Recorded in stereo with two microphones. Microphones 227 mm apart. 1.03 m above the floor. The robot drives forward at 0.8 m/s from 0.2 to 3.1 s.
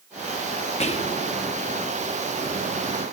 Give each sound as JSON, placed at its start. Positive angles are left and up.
{"t": 0.8, "sound": "whispering", "side_deg": 30}